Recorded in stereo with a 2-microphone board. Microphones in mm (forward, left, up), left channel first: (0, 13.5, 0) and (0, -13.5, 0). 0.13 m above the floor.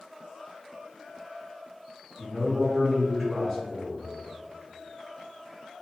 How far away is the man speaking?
About 1.8 m.